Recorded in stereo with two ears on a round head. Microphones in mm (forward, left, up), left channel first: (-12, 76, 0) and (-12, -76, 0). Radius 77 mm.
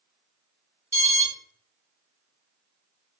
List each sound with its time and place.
0.9 s an alarm: 20° right (ahead or behind), 1.5 m